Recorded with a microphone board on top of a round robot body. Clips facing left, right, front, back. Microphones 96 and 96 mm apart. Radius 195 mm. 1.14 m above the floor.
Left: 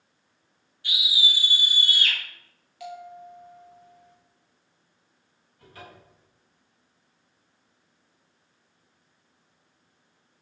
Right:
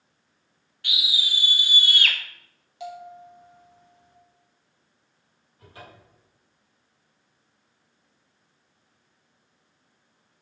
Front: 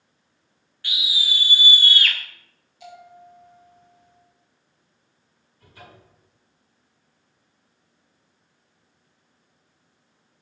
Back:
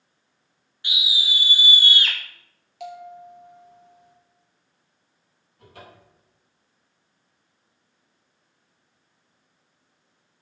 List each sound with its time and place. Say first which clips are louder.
0.8 s a scream: left 2 dB, back 1 dB; 110° right, 2.5 m; by 2.2 s 115° right, 1.4 m
2.8 s a bell: right 1 dB, back 6 dB; 160° right, 2.5 m
5.6 s a cupboard door: even, back 1 dB; 160° right, 4 m